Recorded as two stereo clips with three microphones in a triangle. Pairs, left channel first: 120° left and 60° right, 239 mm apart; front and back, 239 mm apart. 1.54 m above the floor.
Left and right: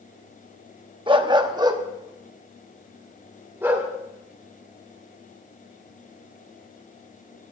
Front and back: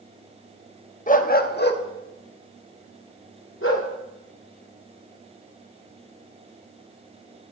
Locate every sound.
1.1 s a dog barking: 10° right, 1.1 m; by 3.9 s 20° left, 2.5 m